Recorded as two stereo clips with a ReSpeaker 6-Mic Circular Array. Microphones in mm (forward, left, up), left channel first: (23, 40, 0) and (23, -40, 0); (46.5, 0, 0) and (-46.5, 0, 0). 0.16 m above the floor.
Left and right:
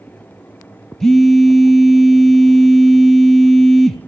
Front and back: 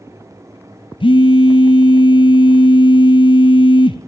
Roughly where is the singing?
No singing in this recording.